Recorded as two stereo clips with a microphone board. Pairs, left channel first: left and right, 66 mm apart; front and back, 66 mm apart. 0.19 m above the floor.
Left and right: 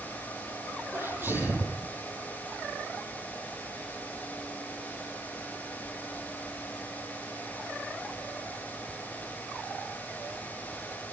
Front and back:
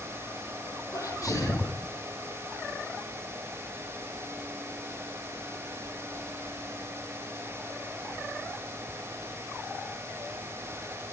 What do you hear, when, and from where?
0.9 s a sneeze: 35° right, 6.5 m